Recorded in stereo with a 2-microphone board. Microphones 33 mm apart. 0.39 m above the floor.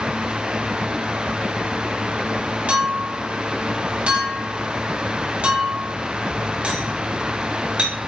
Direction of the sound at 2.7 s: 40° right (ahead or behind).